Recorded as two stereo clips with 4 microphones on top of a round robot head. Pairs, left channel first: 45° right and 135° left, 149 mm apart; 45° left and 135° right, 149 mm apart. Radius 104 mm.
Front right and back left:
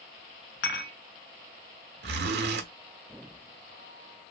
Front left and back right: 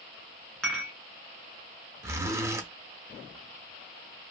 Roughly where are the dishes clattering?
Ahead right.